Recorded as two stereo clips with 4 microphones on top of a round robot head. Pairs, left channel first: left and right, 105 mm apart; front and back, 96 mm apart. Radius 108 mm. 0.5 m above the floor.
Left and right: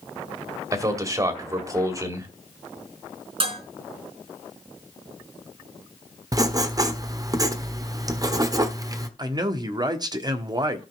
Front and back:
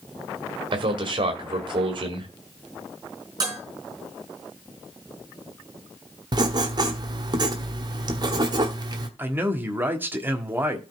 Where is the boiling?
No boiling in this recording.